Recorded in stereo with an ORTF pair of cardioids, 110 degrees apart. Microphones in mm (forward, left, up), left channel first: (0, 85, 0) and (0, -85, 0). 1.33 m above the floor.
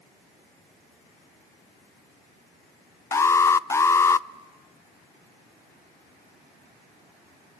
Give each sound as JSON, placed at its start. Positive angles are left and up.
{"t": 3.1, "sound": "an alarm", "azimuth_deg": 15, "distance_m": 0.5}